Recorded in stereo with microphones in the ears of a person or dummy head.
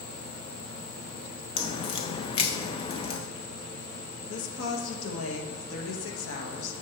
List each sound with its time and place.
1.6 s a crack: 25° left (ahead or behind), 0.6 m
4.3 s a woman speaking: 80° left, 1.3 m